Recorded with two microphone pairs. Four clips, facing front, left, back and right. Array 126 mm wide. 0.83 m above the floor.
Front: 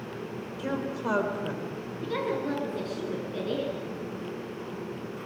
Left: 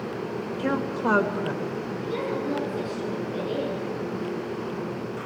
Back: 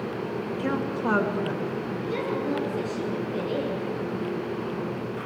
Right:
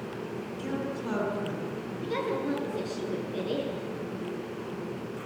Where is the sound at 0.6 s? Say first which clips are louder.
Left 8 dB, back 3 dB; 105° left, 3 m; by 1.6 s 85° left, 3 m.